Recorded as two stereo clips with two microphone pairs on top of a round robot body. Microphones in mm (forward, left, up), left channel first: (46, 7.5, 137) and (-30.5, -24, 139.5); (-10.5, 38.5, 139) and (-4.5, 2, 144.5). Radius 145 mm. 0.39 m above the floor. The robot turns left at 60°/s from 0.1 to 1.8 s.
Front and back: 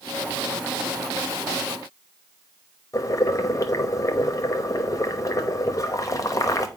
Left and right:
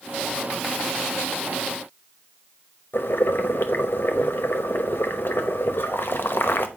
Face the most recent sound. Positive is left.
turn(degrees=75)